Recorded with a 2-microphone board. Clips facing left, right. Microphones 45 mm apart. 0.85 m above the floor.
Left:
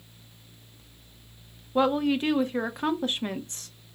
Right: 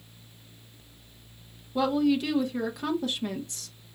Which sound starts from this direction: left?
A woman speaking, at 1.8 s.